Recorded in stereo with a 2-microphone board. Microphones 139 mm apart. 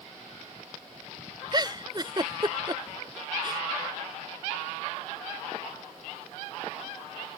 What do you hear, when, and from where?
1.5 s a giggle: 30° right (ahead or behind)